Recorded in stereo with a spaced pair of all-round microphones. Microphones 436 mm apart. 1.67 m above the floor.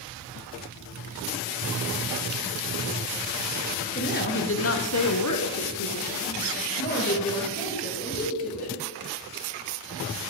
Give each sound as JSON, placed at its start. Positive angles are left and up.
{"t": 4.0, "sound": "a woman speaking", "side_deg": 20, "distance_m": 1.1}